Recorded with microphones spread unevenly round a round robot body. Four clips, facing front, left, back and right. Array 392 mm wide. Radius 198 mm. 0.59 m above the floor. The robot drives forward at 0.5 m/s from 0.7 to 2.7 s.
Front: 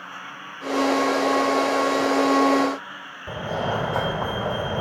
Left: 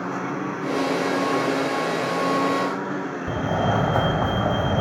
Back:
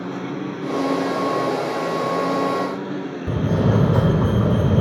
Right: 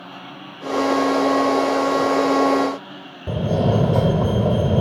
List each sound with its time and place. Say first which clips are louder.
0.0 s a lawn mower: left 10 dB, back 11 dB; 150° left
3.3 s a fire alarm: right 4 dB, back 5 dB; 150° right